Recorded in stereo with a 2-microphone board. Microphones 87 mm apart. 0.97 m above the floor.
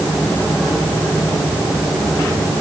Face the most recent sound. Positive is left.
No sound to turn to.